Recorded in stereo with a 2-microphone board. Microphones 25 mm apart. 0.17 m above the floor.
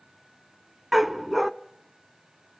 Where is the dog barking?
5° right (ahead or behind), 0.5 m.